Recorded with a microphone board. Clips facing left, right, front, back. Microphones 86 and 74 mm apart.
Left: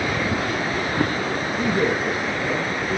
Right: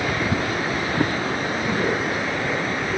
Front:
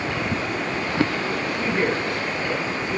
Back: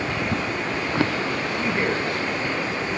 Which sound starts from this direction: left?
A man speaking, at 1.6 s.